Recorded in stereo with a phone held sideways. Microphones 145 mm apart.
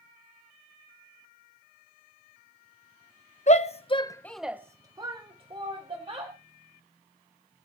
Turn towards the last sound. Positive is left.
turn(degrees=-40)  # may be behind; listen again after turning